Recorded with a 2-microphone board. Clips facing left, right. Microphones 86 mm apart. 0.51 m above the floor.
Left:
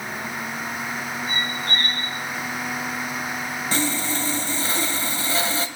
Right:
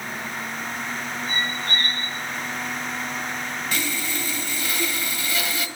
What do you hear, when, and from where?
1.3 s a squeak: 40° left (ahead or behind), 5 m
3.7 s sawing: 35° left (ahead or behind), 1.3 m